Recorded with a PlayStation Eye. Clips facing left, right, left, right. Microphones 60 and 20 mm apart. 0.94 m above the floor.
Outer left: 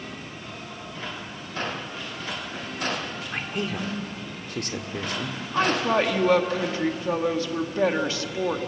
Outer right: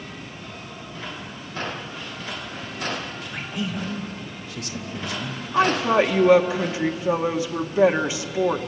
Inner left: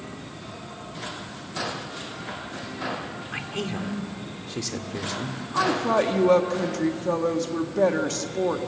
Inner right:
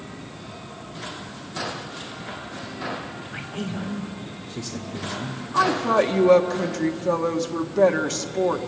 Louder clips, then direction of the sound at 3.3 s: Even, inner left 1 dB; 55° left (ahead or behind).